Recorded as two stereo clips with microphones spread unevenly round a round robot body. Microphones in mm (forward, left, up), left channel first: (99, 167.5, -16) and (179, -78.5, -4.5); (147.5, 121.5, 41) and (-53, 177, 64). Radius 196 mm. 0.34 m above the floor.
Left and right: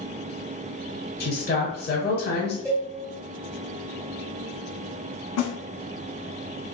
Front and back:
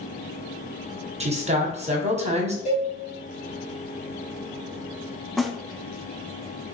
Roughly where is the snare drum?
Left.